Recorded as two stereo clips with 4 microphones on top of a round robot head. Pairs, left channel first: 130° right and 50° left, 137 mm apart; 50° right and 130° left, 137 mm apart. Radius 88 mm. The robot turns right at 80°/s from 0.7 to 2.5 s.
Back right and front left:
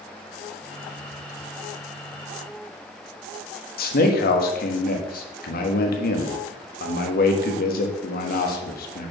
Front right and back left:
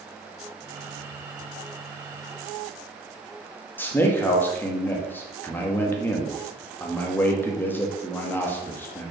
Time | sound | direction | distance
3.8 | a man speaking | 125° right | 1.3 m